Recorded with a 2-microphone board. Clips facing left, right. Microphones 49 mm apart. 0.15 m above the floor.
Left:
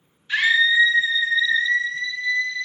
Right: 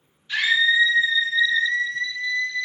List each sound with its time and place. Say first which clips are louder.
0.3 s a scream: left 2 dB; 30° left (ahead or behind), 2.5 m; by 2.7 s 70° left (ahead or behind), 5 m